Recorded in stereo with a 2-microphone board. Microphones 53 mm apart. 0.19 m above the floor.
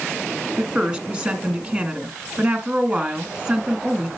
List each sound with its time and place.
0.6 s a woman speaking: 20° right (ahead or behind), 1.5 m